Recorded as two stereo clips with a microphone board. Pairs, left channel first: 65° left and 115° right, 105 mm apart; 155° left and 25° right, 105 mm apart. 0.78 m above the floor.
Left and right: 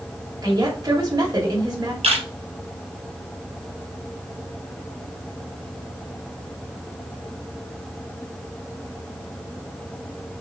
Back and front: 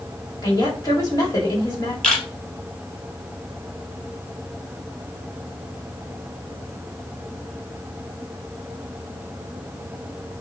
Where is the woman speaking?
155° right, 2 m.